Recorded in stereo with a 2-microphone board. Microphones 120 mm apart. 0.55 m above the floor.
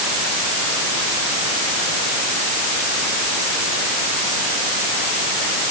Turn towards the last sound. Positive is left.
No sound to turn to.